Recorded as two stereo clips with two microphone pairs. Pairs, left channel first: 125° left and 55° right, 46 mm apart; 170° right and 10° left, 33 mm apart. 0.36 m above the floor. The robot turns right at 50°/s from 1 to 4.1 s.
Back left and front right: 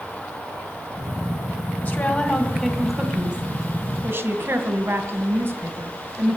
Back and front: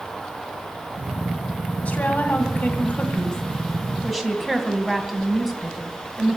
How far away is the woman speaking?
About 2.5 m.